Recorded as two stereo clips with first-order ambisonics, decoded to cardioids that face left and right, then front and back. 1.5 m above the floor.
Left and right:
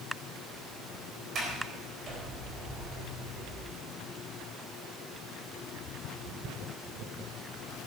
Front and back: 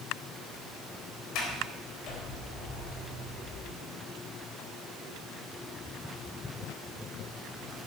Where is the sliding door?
25° right, 4 m.